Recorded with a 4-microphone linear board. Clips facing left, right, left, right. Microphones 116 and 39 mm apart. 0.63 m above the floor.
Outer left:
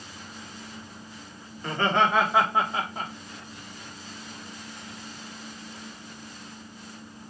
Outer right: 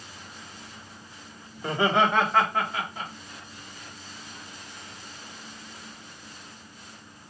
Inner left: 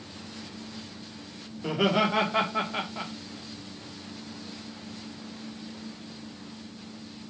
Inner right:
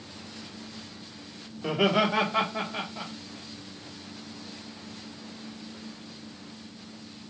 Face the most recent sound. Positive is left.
turn(degrees=45)  # may be behind; listen again after turning